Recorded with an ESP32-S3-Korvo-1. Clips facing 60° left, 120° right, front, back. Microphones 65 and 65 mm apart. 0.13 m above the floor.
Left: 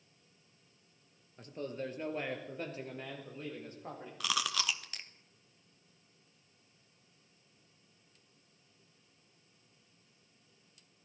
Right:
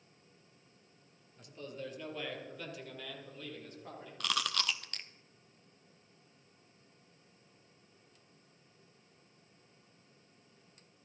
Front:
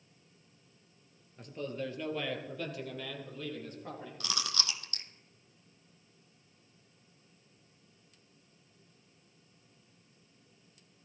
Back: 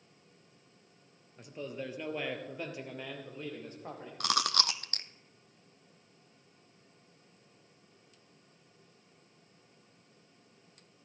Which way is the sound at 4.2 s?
145° left.